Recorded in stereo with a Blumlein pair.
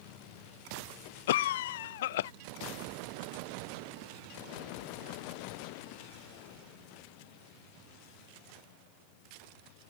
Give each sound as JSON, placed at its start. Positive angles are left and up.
{"t": 1.3, "sound": "a cough", "azimuth_deg": 55}